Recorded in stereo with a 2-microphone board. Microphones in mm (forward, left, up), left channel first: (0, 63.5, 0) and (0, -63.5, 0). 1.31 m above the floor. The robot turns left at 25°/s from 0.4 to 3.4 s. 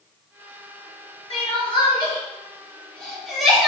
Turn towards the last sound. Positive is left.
turn(degrees=0)  # may be behind; listen again after turning